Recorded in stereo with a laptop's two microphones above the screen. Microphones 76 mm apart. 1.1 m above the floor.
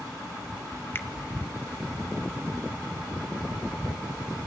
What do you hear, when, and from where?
0.9 s a finger snap: 30° left (ahead or behind), 0.6 m